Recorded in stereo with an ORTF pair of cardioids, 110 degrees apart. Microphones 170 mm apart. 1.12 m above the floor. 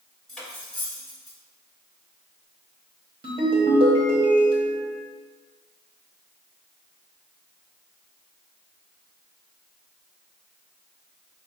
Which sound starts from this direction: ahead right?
A ringtone, at 3.2 s.